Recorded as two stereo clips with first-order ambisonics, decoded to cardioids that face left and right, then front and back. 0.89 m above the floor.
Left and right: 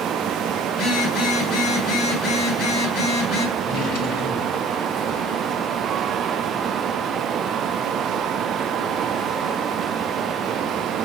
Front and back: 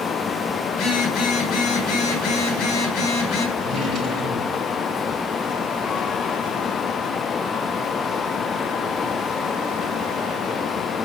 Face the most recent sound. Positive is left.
turn(degrees=105)